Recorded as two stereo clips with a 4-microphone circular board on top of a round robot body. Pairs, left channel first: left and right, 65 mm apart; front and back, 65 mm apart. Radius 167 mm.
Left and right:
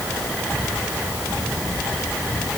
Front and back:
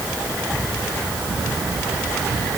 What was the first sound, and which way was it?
Only background noise.